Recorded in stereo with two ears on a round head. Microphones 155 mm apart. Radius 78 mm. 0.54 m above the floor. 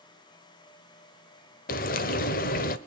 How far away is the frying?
About 0.8 m.